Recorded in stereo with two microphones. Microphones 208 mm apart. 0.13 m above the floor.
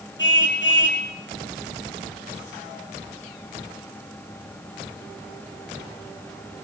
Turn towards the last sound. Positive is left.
turn(degrees=65)  # may be behind; listen again after turning